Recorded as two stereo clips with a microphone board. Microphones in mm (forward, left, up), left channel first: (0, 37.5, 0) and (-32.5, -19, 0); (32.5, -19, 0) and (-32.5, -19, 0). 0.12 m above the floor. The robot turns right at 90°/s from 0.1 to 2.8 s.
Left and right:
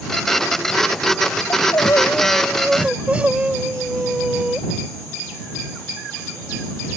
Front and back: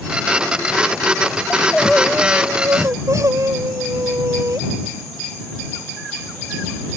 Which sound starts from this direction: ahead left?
Crying, at 1.5 s.